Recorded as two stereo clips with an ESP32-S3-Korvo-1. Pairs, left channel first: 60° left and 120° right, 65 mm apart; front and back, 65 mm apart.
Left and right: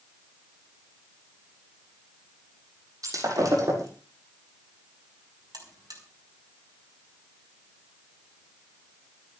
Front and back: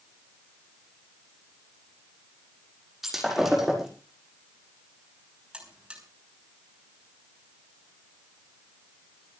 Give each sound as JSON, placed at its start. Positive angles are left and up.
{"t": 3.0, "sound": "breaking glass", "azimuth_deg": -95, "distance_m": 6.5}
{"t": 5.5, "sound": "a buzzer", "azimuth_deg": -105, "distance_m": 5.0}